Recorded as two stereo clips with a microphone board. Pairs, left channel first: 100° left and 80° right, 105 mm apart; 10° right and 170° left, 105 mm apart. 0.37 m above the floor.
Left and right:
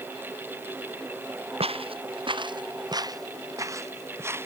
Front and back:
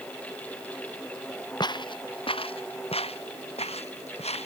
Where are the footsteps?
55° right; by 4.5 s 10° right.